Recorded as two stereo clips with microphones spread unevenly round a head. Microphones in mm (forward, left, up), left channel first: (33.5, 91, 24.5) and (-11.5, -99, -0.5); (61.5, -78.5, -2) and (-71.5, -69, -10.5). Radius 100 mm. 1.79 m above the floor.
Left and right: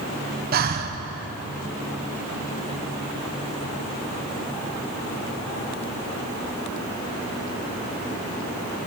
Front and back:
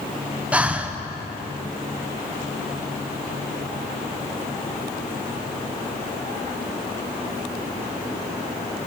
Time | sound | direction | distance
0.5 | breathing | 105° right | 0.7 m